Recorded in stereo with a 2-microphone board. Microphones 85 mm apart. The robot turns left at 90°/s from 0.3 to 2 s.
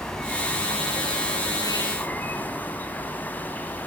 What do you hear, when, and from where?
0.0 s an insect: 175° left, 1.3 m; by 3.9 s 20° left, 1.3 m